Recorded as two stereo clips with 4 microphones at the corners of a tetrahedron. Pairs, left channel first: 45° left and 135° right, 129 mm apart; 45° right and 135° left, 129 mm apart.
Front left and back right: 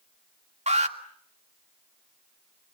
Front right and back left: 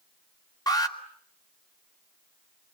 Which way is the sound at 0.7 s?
105° right.